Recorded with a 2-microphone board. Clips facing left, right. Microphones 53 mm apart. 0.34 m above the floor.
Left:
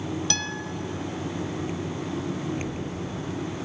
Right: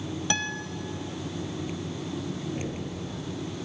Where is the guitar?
20° right (ahead or behind), 0.8 m.